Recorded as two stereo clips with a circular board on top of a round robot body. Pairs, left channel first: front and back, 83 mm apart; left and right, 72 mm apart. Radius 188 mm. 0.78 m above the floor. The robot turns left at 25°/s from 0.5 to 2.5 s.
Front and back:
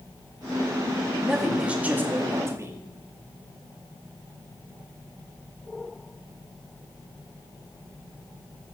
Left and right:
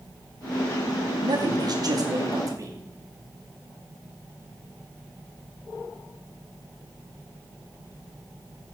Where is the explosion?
No explosion in this recording.